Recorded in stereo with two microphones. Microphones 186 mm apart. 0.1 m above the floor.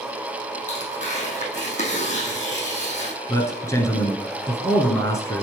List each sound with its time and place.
0.7 s tearing paper: 40° left (ahead or behind), 2.5 m
3.3 s a man speaking: 15° left (ahead or behind), 1.2 m